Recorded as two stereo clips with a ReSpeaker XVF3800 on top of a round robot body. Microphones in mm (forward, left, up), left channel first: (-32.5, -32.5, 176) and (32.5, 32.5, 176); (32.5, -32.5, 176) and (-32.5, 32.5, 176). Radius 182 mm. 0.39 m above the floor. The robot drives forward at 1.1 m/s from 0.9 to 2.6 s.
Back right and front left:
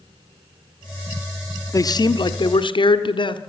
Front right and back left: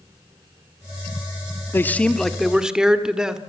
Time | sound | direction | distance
1.7 | a man speaking | 100° right | 1.3 m